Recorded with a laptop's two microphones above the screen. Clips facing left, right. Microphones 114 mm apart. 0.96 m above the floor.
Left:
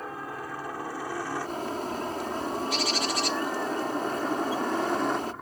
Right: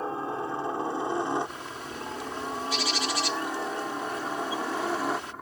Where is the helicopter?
25° right (ahead or behind); by 5.4 s centre (ahead or behind).